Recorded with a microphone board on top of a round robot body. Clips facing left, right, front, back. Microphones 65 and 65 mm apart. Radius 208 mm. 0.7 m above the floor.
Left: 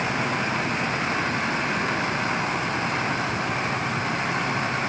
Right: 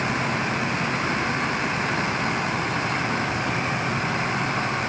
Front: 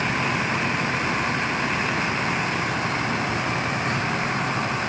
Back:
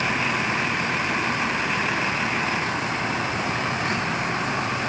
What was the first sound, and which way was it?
Only background noise.